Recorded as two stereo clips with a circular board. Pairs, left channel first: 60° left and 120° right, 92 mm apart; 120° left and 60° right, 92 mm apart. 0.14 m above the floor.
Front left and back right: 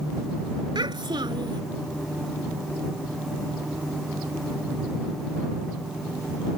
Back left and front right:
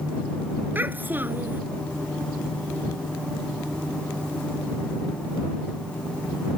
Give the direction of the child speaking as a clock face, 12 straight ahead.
4 o'clock.